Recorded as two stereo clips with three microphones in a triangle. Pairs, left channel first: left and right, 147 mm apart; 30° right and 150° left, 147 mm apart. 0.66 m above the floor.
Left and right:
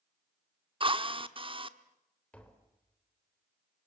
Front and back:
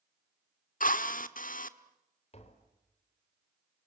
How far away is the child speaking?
No child speaking in this recording.